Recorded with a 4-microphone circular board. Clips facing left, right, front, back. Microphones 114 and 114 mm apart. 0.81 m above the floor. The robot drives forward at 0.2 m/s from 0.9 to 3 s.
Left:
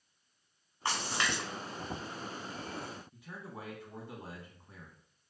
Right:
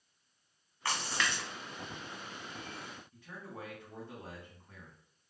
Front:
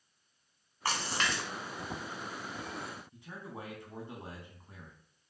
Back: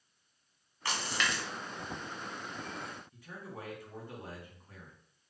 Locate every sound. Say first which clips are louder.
0.8 s a splash: left 1 dB, front 1 dB; 20° left, 0.9 m; by 1.4 s 25° left, 0.9 m
3.1 s a man speaking: left 1 dB, front 1 dB; 25° left, 0.9 m